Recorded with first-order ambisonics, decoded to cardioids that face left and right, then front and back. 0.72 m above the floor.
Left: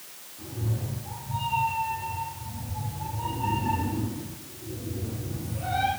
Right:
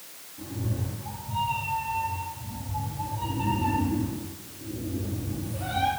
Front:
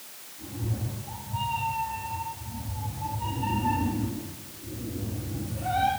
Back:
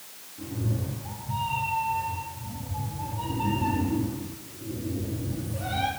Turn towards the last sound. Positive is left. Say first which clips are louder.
# right 1 dB, back 3 dB
turn(degrees=-135)